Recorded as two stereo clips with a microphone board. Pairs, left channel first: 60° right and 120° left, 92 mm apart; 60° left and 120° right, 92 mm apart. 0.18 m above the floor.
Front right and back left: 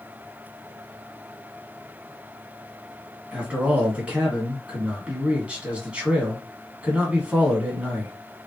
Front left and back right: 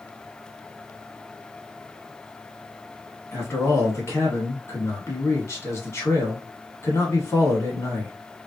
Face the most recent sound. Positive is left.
turn(degrees=55)